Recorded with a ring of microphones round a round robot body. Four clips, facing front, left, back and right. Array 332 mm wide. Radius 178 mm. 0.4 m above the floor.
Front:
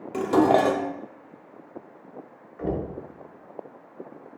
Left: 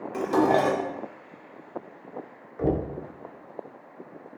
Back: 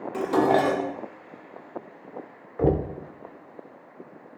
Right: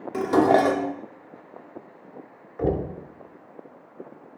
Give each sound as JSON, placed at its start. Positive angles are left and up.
{"t": 0.1, "sound": "dishes clattering", "azimuth_deg": -50, "distance_m": 0.6}
{"t": 2.6, "sound": "knocking", "azimuth_deg": -175, "distance_m": 0.8}